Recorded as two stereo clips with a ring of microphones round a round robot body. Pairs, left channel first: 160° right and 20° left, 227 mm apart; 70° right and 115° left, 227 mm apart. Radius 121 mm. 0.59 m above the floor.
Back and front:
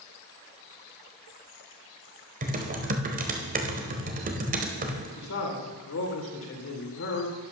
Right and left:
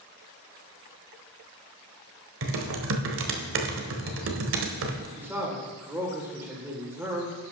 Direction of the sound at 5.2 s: 170° right.